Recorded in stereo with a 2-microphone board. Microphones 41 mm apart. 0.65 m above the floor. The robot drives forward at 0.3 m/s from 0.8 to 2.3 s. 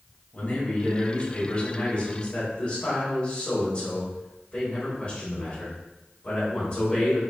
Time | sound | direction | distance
0.3 | a man speaking | 45° left (ahead or behind) | 1.4 m